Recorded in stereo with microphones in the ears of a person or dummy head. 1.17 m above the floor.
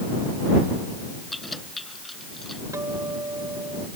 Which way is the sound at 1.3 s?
Centre (ahead or behind).